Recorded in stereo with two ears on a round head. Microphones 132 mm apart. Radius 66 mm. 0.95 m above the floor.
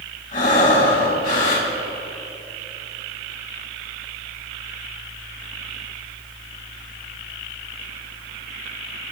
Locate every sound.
0.3 s breathing: 60° left (ahead or behind), 3.5 m